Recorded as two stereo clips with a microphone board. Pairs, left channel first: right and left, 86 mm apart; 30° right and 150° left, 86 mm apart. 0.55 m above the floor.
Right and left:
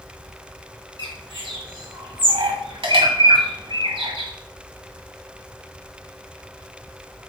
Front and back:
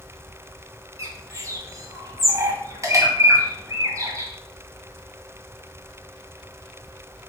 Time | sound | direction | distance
1.0 | a bird | 100° left | 1.3 m